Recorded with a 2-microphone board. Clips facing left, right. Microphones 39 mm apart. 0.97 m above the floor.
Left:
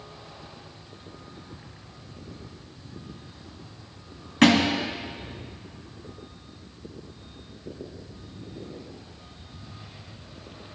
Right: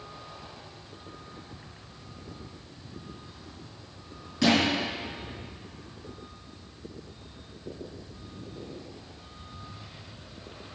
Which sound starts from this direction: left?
A thud, at 4.4 s.